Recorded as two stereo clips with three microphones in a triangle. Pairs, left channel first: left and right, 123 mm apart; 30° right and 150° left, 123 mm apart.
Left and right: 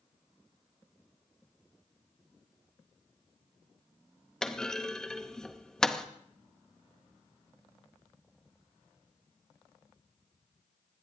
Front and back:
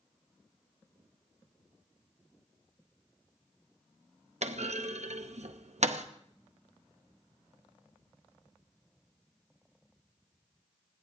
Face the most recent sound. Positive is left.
turn(degrees=175)